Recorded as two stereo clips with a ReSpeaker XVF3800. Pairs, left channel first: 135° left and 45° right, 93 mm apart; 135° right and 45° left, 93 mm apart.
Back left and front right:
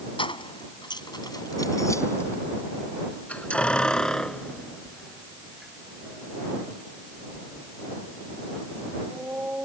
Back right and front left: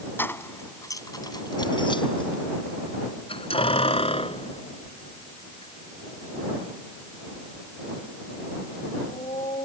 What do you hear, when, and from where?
0.2 s keys jangling: 155° left; by 9.7 s 120° right